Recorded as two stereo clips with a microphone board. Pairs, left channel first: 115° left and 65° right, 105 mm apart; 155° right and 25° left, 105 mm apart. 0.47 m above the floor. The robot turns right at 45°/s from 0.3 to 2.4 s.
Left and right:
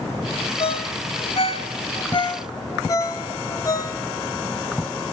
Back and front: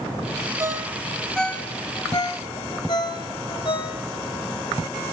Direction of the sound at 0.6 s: 85° left.